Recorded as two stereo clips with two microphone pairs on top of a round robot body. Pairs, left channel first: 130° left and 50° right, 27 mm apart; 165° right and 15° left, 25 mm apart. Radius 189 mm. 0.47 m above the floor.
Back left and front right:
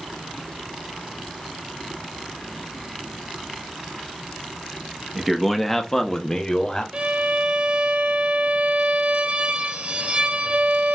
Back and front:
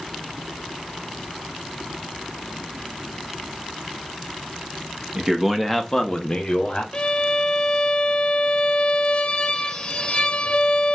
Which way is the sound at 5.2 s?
40° left.